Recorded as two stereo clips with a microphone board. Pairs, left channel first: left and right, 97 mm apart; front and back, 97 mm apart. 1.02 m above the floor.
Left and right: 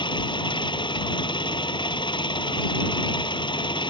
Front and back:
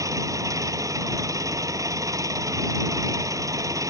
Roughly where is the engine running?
Behind left.